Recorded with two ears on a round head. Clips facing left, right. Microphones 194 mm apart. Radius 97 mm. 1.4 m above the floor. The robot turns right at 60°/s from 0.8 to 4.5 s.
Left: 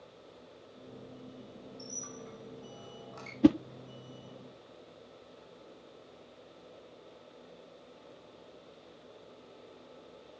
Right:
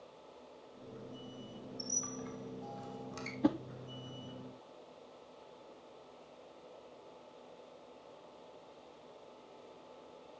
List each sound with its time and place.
1.8 s a squeak: 45° right (ahead or behind), 3.5 m; by 3.3 s 35° right (ahead or behind), 3.5 m
3.4 s a whoosh: 40° left (ahead or behind), 0.5 m; by 3.6 s 30° left (ahead or behind), 0.5 m